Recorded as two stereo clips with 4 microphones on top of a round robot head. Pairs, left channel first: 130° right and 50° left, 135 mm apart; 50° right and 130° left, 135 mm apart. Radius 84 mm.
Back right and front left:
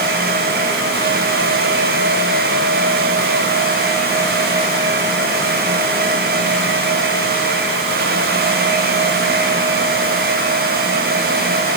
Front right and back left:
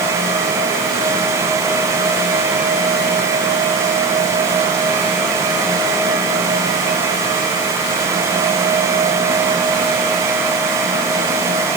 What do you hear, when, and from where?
Only background noise.